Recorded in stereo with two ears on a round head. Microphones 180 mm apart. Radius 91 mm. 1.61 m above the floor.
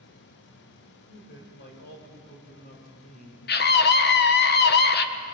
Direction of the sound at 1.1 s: 60° left (ahead or behind).